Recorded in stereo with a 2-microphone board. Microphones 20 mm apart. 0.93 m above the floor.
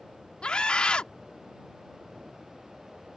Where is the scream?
55° left (ahead or behind).